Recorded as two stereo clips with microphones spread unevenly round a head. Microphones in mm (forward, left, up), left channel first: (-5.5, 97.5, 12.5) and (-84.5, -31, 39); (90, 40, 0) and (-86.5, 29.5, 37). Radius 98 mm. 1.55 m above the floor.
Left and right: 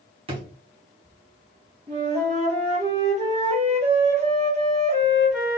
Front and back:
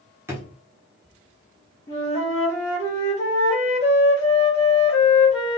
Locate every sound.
0.3 s a drawer: 120° right, 1.4 m
1.9 s a flute: 75° right, 1.9 m